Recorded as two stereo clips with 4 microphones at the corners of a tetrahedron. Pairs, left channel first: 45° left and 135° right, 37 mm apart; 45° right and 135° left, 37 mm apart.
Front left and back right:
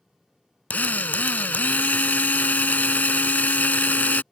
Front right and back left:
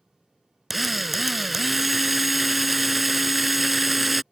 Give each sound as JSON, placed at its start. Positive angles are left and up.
{"t": 0.7, "sound": "a drill", "azimuth_deg": 50}